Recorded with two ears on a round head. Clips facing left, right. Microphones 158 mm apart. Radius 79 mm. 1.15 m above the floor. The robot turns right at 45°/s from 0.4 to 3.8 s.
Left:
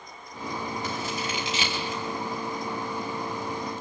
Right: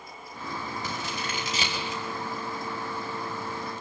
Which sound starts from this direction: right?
Scissors, at 0.8 s.